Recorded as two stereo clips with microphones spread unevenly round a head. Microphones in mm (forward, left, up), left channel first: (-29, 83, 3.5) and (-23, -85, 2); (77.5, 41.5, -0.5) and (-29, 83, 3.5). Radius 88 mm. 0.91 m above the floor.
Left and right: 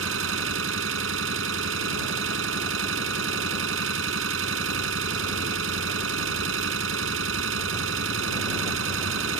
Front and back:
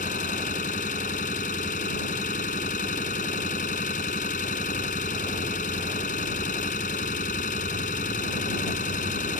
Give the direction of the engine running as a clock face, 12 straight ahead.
2 o'clock.